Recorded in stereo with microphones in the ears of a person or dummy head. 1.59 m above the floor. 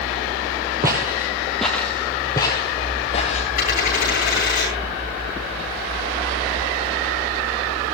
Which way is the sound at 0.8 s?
20° right (ahead or behind).